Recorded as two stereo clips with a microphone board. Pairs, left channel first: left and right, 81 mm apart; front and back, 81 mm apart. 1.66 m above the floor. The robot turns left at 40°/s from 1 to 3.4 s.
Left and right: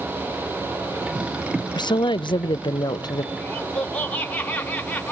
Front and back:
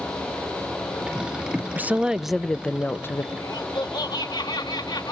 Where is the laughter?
20° left, 1.3 m.